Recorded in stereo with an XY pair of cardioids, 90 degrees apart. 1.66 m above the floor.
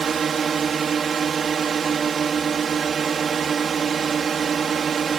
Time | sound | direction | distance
0.0 | a drone | 50° right | ?